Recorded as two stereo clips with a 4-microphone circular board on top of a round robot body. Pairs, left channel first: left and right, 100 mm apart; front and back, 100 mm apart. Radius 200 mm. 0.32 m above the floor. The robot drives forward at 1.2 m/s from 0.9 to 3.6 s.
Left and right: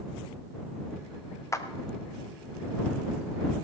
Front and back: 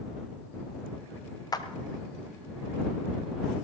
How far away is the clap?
About 1.4 m.